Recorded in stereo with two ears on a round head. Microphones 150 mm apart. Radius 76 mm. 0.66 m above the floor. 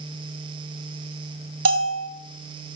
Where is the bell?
80° right, 2 m.